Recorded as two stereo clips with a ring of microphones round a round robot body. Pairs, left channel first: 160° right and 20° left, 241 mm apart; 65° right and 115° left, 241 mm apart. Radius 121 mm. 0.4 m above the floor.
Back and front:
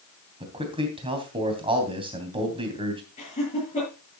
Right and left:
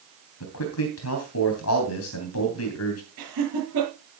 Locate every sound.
0.4 s a man speaking: 45° right, 3 m
3.2 s laughter: 140° left, 7 m